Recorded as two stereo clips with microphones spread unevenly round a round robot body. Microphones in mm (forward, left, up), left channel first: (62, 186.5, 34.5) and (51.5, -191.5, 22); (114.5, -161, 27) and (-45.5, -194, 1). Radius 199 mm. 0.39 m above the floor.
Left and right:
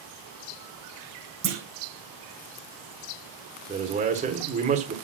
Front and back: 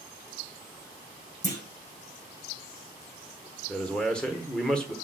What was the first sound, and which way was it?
A clunk, 35° right.